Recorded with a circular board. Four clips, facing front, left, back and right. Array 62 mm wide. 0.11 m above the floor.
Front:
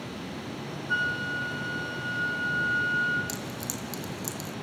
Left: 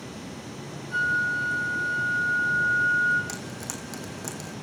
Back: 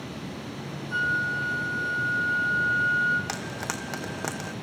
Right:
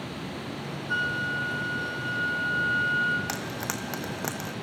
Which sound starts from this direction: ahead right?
A flute, at 0.9 s.